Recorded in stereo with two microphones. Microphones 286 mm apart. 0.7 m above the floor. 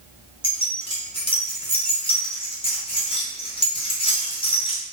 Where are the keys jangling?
20° left (ahead or behind), 0.8 m.